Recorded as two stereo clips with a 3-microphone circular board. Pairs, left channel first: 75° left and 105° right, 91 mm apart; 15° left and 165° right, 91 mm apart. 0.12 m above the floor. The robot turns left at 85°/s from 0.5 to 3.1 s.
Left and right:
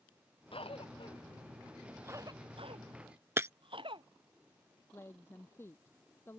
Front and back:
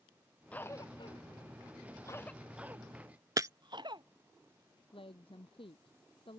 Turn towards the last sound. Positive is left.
turn(degrees=10)